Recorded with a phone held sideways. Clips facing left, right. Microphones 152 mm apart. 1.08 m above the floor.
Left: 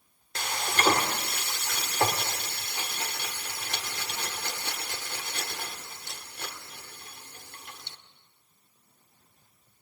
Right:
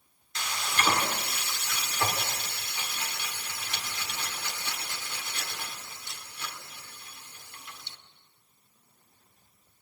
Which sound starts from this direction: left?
Frying, at 0.3 s.